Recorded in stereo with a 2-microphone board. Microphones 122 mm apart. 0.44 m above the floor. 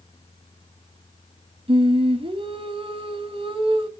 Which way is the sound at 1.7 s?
50° right (ahead or behind).